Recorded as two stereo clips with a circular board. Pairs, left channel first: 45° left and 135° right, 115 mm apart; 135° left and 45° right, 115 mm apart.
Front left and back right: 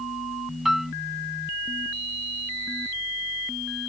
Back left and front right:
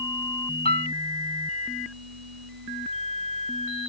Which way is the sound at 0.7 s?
135° left.